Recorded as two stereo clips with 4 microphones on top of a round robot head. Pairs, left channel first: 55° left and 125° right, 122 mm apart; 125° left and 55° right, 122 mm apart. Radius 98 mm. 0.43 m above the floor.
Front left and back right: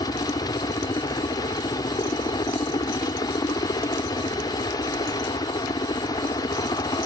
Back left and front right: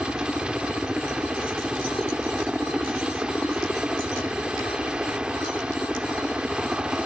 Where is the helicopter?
25° left.